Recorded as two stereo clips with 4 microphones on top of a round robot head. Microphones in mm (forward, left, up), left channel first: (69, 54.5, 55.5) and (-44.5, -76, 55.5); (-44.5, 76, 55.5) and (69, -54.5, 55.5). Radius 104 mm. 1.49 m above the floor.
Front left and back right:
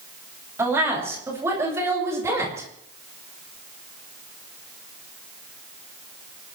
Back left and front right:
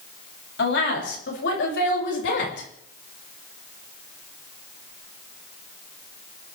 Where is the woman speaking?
155° left, 8 m.